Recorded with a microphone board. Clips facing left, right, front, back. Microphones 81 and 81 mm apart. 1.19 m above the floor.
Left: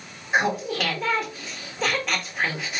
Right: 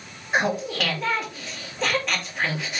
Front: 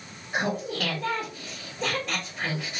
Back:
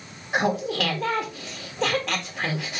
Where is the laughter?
175° left, 1.6 m.